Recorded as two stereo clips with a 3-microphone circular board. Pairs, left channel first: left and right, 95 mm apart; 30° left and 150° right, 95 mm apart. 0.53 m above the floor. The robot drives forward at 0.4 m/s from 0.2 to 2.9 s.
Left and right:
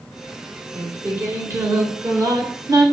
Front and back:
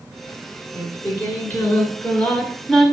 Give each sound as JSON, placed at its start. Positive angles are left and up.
{"t": 0.8, "sound": "singing", "azimuth_deg": -30, "distance_m": 1.7}